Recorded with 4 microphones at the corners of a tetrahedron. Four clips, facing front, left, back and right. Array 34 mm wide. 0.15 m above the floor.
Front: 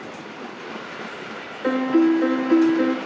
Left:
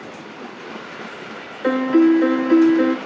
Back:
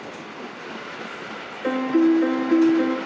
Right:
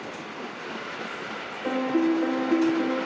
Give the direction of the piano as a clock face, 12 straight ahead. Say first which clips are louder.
Left 9 dB, front 1 dB; 9 o'clock.